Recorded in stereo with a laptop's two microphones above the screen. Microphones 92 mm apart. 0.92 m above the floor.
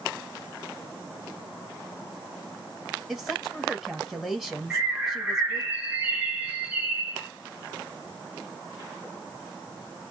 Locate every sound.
3.1 s a woman speaking: 5° right (ahead or behind), 1.3 m
4.7 s a bird: 15° right (ahead or behind), 0.8 m